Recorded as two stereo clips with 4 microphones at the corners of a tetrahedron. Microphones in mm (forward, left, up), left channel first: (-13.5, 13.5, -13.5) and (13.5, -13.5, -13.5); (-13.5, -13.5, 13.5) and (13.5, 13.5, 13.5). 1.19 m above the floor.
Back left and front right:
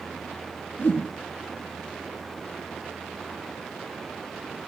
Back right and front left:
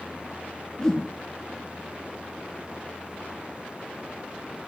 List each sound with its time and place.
0.8 s a whoosh: 150° left, 1.3 m